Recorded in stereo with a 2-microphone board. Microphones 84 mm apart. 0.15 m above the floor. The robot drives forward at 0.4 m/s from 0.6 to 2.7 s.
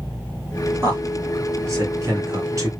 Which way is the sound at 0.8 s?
30° right (ahead or behind).